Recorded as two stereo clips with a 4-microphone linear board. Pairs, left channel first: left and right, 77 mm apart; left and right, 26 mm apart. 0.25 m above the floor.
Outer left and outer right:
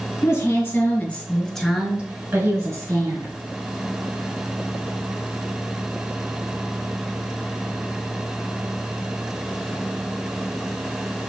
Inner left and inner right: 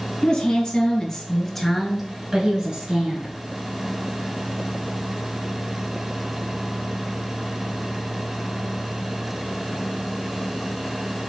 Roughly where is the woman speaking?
Left.